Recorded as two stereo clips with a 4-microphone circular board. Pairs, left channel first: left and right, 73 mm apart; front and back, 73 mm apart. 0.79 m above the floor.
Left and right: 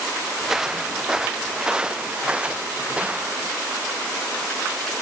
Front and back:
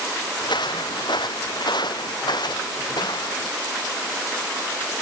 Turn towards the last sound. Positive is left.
turn(degrees=-20)